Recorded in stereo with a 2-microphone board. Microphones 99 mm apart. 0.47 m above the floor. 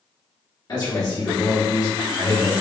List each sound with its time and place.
0.7 s a man speaking: 45° left (ahead or behind), 1.8 m